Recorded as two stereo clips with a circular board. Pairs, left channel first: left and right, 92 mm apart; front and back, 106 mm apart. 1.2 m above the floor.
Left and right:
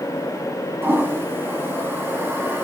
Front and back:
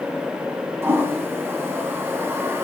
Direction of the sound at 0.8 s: 135° right.